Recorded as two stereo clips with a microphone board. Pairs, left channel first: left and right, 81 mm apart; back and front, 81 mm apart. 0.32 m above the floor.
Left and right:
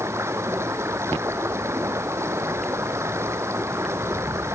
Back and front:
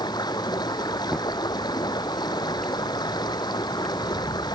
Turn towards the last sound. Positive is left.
turn(degrees=-145)